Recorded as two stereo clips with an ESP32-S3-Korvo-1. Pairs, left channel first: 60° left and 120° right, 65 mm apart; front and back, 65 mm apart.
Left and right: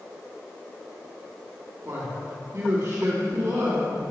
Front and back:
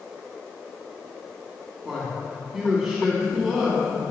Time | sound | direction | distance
1.9 | a man speaking | 95° right | 2 m